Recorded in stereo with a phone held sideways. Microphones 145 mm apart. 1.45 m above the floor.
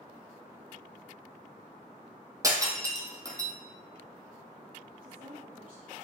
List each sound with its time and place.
2.4 s breaking glass: 25° right (ahead or behind), 1.9 m
5.0 s a woman speaking: 70° right (ahead or behind), 3 m